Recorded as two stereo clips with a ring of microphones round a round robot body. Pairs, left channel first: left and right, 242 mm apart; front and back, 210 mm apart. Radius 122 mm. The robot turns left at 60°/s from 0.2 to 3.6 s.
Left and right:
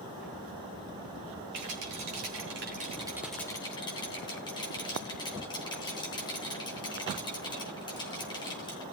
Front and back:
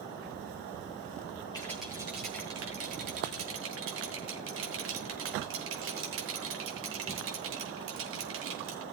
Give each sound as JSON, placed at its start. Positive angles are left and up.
{"t": 1.5, "sound": "a rattle", "azimuth_deg": -75, "distance_m": 4.5}